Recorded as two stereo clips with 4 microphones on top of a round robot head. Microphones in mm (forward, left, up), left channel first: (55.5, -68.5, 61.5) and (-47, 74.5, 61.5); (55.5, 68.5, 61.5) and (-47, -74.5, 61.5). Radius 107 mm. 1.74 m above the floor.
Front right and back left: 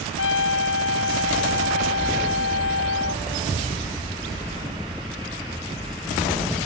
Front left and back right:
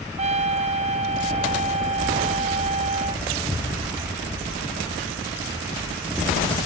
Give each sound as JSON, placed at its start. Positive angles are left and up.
{"t": 0.2, "sound": "a trumpet", "azimuth_deg": -70}